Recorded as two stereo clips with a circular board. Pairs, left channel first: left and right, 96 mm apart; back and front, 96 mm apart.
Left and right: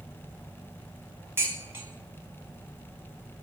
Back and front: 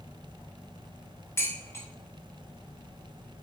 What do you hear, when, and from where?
1.4 s dishes clattering: 135° right, 1.1 m